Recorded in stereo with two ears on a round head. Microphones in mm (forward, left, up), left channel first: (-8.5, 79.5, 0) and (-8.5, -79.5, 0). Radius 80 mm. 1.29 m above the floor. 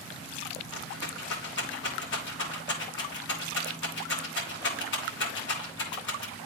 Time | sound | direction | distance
0.7 | a rattle | 70° left (ahead or behind) | 2.5 m